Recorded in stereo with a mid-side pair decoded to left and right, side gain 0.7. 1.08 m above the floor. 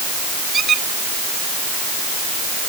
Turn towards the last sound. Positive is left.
turn(degrees=-30)